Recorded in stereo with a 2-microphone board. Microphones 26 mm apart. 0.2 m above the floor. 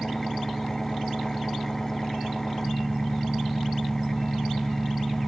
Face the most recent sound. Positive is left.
turn(degrees=10)  # may be behind; listen again after turning